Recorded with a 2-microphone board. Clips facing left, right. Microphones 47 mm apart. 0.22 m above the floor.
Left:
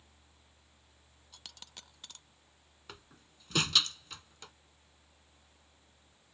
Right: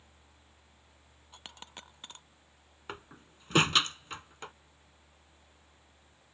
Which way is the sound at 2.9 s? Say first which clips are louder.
Right 8 dB; 35° right (ahead or behind).